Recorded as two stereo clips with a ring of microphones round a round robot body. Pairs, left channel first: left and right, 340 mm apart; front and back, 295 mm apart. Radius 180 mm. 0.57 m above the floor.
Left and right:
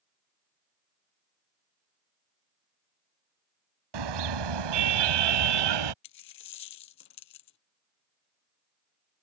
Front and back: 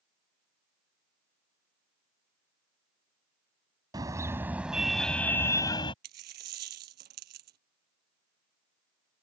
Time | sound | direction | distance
3.9 | a car horn | 100° right | ?
6.0 | a dropped coin | 135° left | ?